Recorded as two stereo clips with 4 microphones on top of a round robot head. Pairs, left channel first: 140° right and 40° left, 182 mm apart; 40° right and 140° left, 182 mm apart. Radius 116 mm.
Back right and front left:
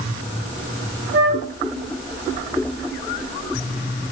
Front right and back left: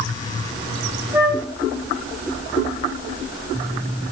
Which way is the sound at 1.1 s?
65° left.